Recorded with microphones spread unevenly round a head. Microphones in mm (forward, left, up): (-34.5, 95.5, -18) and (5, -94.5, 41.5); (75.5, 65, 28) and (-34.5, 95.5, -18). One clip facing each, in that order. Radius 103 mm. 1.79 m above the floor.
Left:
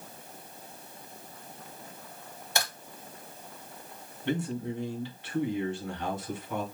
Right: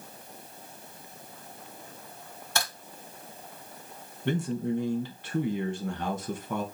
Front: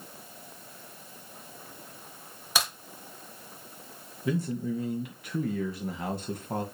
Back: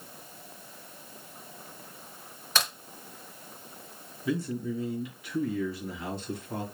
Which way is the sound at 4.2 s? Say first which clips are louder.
Right 3 dB, front 1 dB; 40° right.